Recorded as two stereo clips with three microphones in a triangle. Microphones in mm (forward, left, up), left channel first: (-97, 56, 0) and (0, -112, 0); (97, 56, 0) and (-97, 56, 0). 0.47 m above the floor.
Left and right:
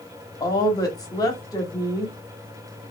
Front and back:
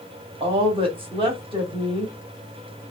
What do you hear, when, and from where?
0.4 s a woman speaking: 170° left, 1.0 m